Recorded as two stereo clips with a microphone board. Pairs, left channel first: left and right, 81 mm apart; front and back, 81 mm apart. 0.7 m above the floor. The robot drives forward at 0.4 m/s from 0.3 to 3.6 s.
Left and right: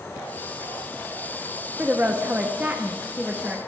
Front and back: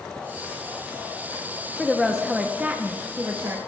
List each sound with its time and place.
1.8 s a woman speaking: 80° right, 0.9 m; by 3.6 s 155° right, 1.1 m